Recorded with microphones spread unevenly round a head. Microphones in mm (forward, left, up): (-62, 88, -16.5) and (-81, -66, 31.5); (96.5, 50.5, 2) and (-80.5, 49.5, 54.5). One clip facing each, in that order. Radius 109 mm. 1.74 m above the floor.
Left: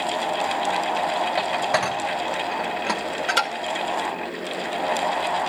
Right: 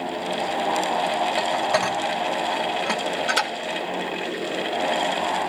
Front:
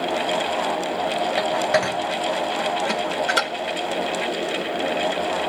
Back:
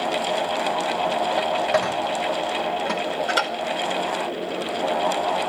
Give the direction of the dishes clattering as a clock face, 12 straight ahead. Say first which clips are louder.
Right 1 dB, front 2 dB; 3 o'clock.